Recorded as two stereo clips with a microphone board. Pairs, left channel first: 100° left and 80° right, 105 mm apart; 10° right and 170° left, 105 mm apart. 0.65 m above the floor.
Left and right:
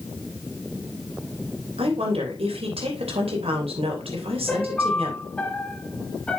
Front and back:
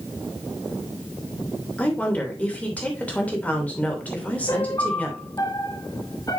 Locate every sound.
1.8 s a woman speaking: 85° right, 3 m
4.5 s a piano: 25° left, 1.0 m